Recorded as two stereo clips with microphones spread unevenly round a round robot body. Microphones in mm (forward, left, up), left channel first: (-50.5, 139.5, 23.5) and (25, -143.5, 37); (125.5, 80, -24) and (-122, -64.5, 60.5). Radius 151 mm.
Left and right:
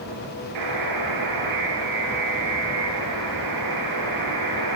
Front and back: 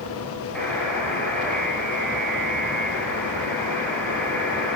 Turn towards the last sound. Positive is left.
turn(degrees=-55)